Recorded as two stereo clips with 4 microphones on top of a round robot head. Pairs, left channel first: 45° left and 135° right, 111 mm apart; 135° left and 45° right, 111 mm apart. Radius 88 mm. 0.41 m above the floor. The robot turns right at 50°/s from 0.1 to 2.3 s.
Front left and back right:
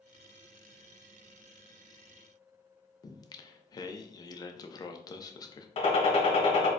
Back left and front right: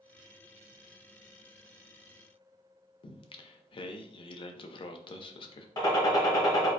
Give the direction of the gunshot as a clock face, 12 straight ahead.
9 o'clock.